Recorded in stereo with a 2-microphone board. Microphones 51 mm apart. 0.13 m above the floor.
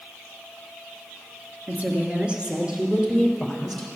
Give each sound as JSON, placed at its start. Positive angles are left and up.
{"t": 1.7, "sound": "a woman speaking", "side_deg": -35, "distance_m": 2.0}